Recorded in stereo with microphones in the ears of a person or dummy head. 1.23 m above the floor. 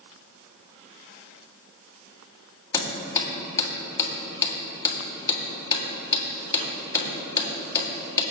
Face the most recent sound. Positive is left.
turn(degrees=25)  # may be behind; listen again after turning